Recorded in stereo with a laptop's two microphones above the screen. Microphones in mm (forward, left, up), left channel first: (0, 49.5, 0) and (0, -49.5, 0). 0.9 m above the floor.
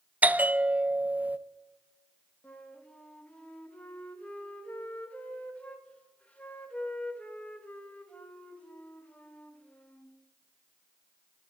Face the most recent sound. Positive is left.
turn(degrees=15)  # may be behind; listen again after turning